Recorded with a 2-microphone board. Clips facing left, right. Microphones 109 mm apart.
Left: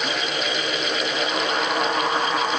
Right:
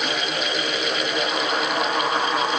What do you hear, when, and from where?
Only background noise.